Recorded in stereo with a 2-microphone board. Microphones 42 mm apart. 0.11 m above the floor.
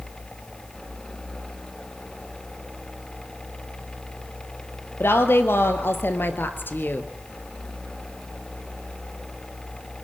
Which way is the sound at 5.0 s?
60° left (ahead or behind).